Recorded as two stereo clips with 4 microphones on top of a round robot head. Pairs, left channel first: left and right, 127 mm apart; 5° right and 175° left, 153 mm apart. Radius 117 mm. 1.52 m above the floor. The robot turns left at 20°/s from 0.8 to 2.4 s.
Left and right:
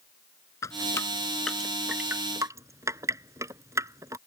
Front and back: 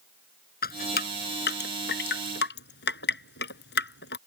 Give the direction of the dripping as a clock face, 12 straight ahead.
11 o'clock.